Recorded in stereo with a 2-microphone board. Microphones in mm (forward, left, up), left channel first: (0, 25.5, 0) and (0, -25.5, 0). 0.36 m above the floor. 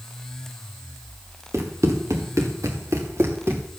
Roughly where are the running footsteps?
Right.